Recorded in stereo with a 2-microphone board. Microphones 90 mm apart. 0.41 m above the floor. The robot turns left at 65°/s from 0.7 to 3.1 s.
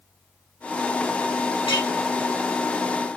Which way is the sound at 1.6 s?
75° left (ahead or behind).